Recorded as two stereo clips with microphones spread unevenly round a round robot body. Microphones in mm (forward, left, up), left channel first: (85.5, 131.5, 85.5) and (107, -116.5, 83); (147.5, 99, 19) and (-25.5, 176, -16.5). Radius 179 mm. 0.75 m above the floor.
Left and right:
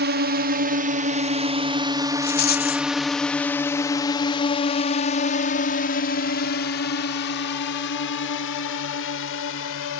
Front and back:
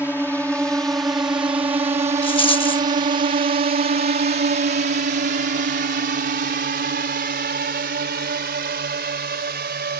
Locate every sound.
0.0 s a drone: 110° right; by 10.0 s 130° left
2.2 s a rattle: 40° left